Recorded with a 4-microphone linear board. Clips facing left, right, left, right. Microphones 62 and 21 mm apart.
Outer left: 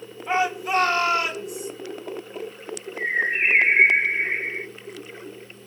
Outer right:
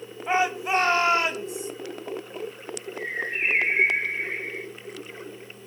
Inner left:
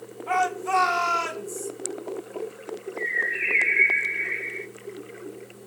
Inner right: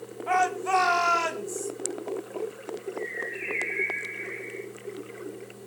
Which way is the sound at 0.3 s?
20° right (ahead or behind).